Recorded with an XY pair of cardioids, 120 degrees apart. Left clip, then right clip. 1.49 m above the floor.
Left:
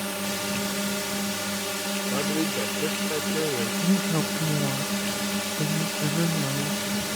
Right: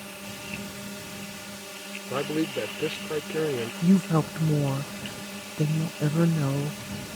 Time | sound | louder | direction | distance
0.0 | a drone | left 9 dB | 60° left | ?
2.1 | a man speaking | right 2 dB | 10° right | ?
3.8 | a woman speaking | even | 20° right | ?